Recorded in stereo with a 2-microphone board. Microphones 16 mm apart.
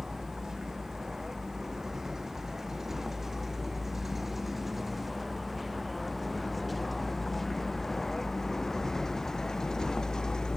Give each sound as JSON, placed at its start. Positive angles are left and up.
{"t": 0.0, "sound": "a vehicle", "side_deg": -30}